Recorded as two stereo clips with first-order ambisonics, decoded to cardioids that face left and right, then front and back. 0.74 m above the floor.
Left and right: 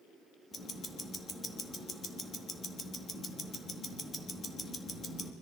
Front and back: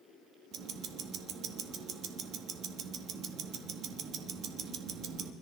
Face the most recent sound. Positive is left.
turn(degrees=150)